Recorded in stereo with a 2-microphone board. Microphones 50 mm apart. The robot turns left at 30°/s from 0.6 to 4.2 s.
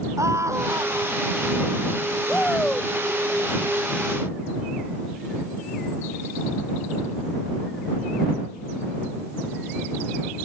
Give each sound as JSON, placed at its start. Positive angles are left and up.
{"t": 0.2, "sound": "a scream", "side_deg": -80}
{"t": 2.3, "sound": "a shout", "side_deg": 25}